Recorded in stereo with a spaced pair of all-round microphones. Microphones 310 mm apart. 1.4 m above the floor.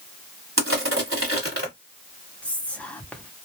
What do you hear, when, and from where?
0.6 s crushing: 45° right (ahead or behind), 1.3 m
2.4 s whispering: 5° left (ahead or behind), 0.7 m